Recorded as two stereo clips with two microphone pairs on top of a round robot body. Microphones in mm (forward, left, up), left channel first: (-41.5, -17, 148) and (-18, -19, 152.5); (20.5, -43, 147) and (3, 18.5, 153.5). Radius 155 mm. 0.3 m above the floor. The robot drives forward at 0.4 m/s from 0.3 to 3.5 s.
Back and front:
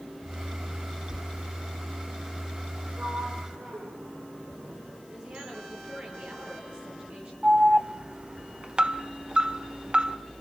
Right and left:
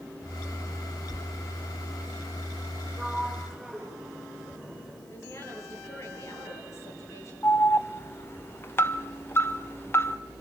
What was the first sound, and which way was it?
A sliding door, 15° left.